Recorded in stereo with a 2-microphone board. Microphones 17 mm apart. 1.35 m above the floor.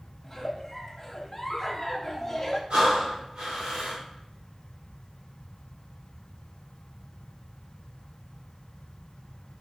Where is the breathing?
70° right (ahead or behind), 3 m.